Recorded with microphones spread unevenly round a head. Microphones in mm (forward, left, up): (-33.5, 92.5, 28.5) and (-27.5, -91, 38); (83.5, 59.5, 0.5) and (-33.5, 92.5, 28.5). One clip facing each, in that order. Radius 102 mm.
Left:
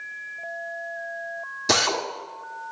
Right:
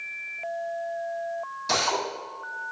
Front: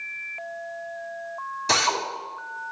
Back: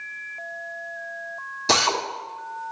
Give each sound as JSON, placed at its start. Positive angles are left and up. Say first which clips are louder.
{"t": 1.7, "sound": "a drill", "louder": "left 3 dB, back 2 dB", "azimuth_deg": 115, "distance_m": 1.6}